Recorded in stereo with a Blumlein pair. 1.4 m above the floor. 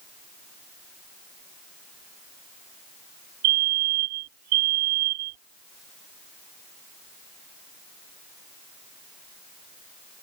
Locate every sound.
3.4 s a fire alarm: 50° right